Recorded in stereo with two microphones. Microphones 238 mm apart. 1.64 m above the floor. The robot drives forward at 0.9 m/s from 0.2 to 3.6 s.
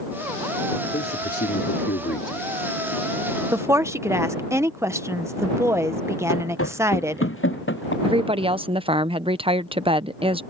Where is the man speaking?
45° left (ahead or behind); by 2.6 s 55° left (ahead or behind).